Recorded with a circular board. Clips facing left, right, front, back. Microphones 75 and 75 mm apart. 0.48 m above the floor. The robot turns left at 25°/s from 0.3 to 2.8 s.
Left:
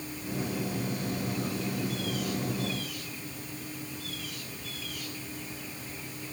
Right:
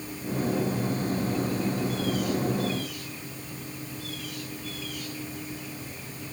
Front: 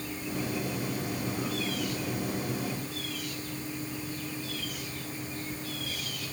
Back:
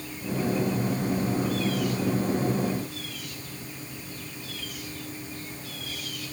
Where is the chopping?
I don't hear chopping.